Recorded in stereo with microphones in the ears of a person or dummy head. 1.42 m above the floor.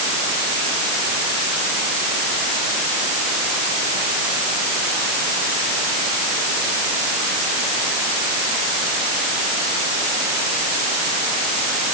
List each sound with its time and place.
Only background noise.